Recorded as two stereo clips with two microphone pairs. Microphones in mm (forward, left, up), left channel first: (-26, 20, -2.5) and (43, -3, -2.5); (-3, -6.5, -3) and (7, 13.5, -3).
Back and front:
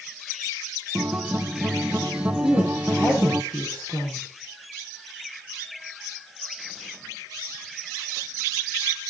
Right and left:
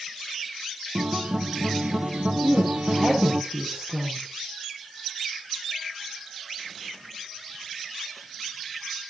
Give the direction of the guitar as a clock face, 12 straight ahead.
10 o'clock.